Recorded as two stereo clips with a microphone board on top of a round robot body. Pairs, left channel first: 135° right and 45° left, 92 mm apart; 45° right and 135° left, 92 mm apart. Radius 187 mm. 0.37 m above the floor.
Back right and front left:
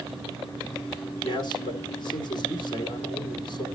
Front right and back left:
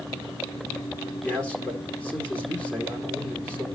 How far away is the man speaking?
About 2 m.